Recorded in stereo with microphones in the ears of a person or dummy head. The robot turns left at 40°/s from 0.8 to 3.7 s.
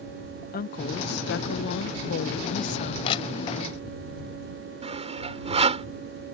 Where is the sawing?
35° right (ahead or behind).